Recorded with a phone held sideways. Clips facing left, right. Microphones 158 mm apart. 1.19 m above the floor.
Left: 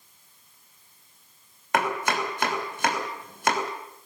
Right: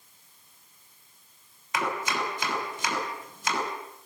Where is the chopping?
70° left (ahead or behind), 6 m.